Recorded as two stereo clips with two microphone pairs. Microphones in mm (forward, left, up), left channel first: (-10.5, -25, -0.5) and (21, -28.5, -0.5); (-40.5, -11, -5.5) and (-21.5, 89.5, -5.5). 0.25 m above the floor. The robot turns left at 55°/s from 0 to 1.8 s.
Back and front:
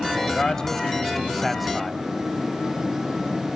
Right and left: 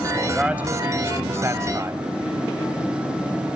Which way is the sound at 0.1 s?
160° left.